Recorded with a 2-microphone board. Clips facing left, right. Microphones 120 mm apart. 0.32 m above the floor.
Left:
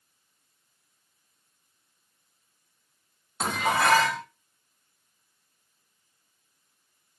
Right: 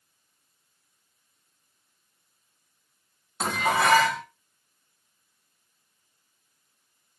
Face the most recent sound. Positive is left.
turn(degrees=0)  # may be behind; listen again after turning